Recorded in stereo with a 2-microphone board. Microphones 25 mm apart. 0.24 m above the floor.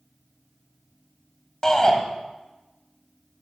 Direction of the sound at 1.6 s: 25° left (ahead or behind).